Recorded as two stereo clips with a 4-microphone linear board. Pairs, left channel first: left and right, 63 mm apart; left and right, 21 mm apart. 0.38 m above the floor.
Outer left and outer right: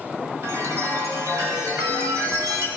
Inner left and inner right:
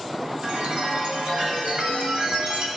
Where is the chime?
50° right (ahead or behind), 0.8 m.